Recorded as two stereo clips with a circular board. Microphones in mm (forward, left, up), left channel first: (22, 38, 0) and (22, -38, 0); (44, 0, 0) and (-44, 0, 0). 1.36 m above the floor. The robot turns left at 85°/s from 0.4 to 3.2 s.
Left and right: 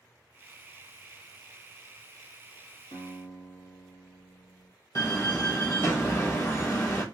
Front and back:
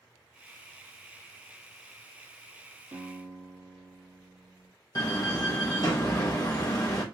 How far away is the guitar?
About 1.8 m.